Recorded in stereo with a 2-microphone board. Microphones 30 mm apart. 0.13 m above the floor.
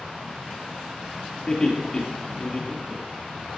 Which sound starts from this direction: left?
Laughter, at 1.5 s.